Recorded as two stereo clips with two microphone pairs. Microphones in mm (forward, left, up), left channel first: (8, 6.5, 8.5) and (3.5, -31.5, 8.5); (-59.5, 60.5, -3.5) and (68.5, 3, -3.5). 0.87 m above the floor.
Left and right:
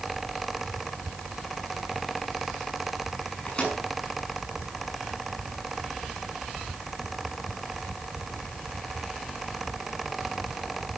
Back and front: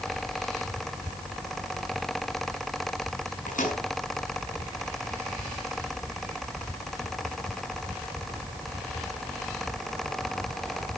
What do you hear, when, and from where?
3.5 s a microwave: 145° left, 6.5 m